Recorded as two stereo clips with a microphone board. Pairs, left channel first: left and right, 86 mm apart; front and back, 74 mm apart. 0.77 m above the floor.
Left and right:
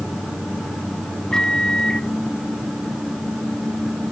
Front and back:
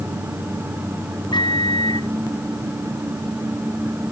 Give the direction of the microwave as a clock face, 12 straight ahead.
12 o'clock.